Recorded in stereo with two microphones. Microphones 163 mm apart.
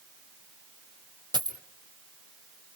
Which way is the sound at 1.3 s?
30° right (ahead or behind).